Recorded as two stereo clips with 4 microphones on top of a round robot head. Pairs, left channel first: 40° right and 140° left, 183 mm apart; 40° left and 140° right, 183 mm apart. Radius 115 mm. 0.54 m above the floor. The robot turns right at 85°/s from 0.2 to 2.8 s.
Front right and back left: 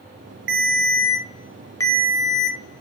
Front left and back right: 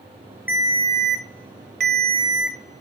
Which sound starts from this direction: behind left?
A ringtone, at 0.5 s.